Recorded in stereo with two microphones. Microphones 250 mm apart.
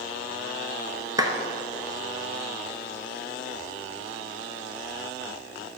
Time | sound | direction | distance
1.2 | a clap | 15° right (ahead or behind) | 0.9 m